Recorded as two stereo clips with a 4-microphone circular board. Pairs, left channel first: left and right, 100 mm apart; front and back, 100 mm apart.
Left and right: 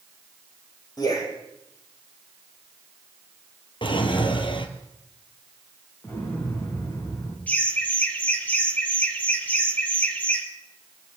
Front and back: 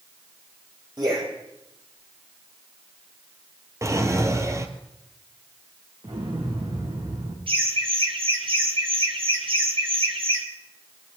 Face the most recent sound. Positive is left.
turn(degrees=165)